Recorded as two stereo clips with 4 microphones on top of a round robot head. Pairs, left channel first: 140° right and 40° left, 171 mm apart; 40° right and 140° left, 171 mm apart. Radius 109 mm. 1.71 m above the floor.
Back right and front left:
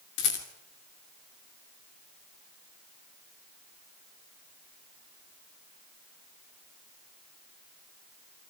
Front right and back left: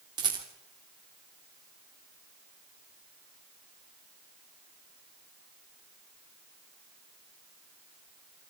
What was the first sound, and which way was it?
A rattle, 155° right.